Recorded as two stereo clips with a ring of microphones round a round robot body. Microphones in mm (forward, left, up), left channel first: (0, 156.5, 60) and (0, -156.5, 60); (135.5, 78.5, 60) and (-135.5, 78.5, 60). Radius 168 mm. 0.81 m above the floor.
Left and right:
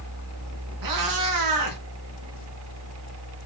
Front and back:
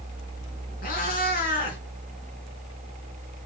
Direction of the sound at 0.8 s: 65° right.